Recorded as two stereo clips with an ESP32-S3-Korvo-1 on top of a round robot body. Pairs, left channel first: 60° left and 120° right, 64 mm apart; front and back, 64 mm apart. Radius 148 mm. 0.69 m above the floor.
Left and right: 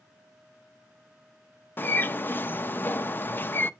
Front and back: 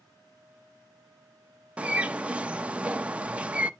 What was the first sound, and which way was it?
A bird, 110° left.